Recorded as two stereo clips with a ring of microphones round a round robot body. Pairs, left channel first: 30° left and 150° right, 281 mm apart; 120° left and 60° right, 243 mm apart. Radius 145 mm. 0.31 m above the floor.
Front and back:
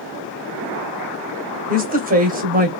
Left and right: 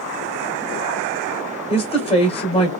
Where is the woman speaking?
170° left, 1.3 m.